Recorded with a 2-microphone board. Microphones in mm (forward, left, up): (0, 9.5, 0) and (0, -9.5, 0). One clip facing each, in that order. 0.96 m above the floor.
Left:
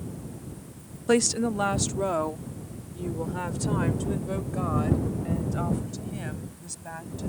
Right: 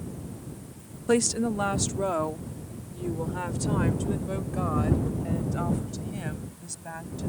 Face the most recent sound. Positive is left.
turn(degrees=-5)  # may be behind; listen again after turning